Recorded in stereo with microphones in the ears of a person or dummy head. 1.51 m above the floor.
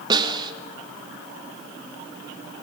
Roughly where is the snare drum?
Centre.